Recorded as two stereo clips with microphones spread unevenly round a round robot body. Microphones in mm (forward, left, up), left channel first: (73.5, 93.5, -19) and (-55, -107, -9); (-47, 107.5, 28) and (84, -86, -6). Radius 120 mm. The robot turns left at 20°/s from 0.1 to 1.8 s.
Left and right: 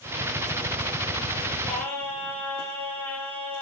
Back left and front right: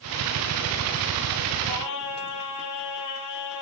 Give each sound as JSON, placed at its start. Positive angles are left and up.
{"t": 1.7, "sound": "singing", "azimuth_deg": 145, "distance_m": 8.5}